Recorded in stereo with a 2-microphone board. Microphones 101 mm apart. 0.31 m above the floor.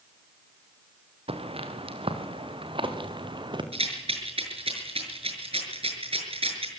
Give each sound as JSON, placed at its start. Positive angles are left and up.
{"t": 1.3, "sound": "footsteps", "side_deg": -70, "distance_m": 4.0}
{"t": 3.7, "sound": "a rattle", "side_deg": -70, "distance_m": 6.0}